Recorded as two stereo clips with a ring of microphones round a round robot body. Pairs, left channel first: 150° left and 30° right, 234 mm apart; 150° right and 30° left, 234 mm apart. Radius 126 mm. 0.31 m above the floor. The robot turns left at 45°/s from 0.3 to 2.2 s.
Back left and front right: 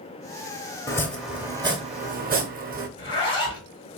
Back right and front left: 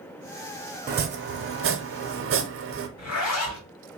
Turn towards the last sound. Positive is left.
turn(degrees=-140)